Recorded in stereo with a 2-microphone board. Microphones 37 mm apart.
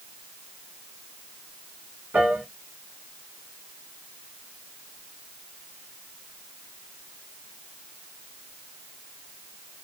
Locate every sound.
2.1 s a piano: 40° right (ahead or behind), 2.5 m